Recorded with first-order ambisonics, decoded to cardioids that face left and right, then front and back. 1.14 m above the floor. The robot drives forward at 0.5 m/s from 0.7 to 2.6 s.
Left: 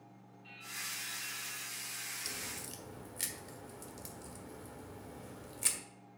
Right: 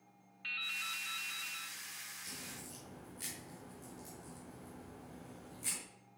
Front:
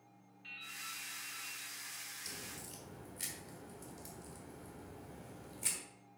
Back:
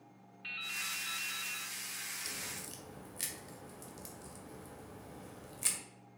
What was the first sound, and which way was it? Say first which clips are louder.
Dripping: right 6 dB, back 8 dB; 125° right.